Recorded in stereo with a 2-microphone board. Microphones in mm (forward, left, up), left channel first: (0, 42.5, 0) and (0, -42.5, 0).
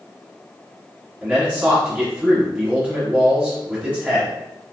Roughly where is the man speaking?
Centre.